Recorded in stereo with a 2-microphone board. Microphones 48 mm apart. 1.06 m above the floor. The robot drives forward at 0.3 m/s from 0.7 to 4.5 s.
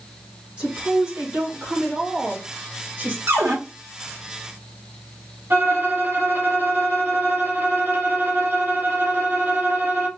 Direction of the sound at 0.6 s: 25° right (ahead or behind).